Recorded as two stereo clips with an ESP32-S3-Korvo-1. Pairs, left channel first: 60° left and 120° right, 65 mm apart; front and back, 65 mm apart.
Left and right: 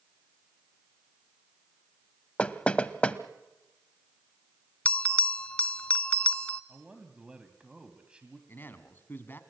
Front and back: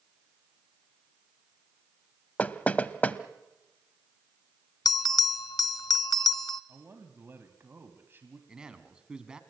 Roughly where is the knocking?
Ahead.